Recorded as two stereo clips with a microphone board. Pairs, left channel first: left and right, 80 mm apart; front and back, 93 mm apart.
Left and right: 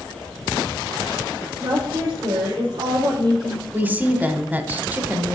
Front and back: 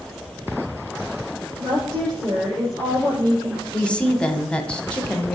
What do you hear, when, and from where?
1.6 s a woman speaking: 130° right, 6 m
3.7 s a woman speaking: 60° right, 1.0 m